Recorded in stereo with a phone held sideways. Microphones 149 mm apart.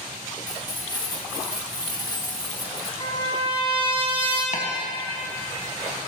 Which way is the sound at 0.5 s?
30° left (ahead or behind).